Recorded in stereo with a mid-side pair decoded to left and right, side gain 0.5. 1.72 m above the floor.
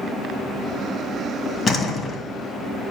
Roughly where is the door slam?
Ahead left.